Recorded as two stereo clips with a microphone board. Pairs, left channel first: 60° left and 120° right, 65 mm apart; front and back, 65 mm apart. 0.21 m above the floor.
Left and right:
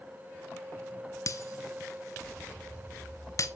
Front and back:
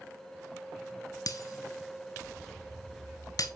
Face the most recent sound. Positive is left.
turn(degrees=25)